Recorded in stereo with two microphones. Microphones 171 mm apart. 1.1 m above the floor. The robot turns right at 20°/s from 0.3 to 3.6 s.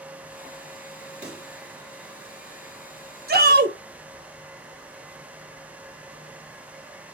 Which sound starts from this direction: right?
A shout, at 3.3 s.